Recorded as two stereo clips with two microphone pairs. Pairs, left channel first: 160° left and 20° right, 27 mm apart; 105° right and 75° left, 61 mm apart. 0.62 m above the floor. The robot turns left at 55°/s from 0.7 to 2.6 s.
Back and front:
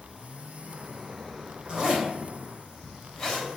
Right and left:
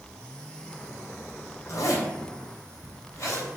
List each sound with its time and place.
1.7 s a zipper: 80° right, 3 m; by 3.5 s 130° right, 3 m